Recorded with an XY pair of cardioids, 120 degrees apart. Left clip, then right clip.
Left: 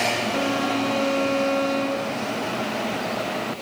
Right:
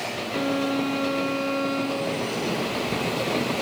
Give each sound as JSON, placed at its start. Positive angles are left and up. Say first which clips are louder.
{"t": 0.3, "sound": "a violin", "louder": "left 2 dB", "azimuth_deg": 15, "distance_m": 0.7}